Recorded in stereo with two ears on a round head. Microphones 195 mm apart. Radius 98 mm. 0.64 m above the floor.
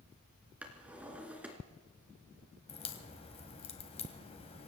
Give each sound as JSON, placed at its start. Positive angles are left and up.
{"t": 0.6, "sound": "a drawer", "side_deg": -5, "distance_m": 2.5}
{"t": 2.7, "sound": "a crack", "side_deg": 30, "distance_m": 1.7}